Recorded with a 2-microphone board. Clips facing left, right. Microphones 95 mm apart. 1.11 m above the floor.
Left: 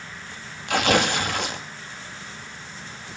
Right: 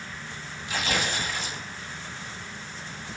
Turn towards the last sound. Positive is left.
turn(degrees=70)  # may be behind; listen again after turning